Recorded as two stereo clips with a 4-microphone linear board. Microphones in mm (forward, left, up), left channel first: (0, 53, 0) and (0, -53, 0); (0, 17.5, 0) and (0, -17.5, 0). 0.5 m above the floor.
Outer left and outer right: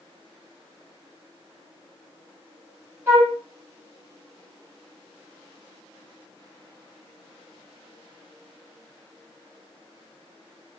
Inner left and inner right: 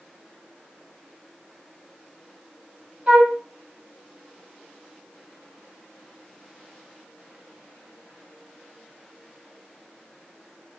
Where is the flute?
25° right (ahead or behind), 2.5 m.